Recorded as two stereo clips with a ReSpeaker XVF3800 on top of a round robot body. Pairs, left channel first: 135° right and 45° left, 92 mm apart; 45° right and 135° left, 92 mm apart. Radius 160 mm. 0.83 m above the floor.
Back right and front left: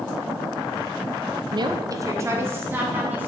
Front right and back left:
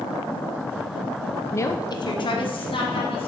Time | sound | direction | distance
1.5 | a woman speaking | 20° left | 0.9 m